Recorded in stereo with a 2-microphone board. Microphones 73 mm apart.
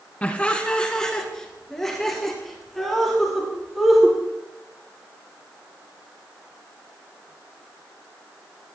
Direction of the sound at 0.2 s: 20° left (ahead or behind).